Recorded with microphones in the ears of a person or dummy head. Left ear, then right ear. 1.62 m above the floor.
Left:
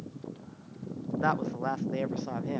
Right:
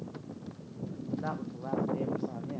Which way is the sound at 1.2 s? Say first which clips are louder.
Left 13 dB; 55° left (ahead or behind).